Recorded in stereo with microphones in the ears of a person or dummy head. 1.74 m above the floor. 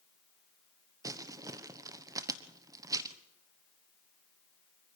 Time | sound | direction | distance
1.0 | crumpling | 20° right (ahead or behind) | 1.1 m